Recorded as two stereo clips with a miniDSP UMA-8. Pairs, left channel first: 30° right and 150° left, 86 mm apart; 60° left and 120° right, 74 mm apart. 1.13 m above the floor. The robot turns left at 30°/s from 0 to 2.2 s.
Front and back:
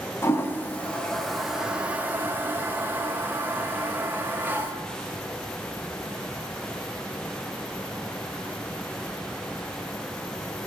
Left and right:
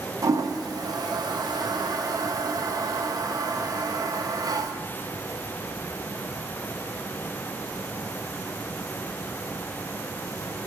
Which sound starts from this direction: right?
A toilet flushing, at 0.2 s.